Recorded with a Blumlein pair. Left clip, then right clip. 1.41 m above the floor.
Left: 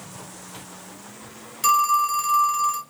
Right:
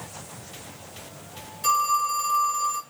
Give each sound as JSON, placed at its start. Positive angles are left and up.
{"t": 1.6, "sound": "a phone ringing", "azimuth_deg": 30, "distance_m": 1.0}